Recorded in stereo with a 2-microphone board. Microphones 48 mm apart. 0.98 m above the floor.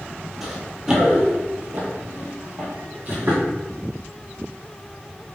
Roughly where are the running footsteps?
Centre.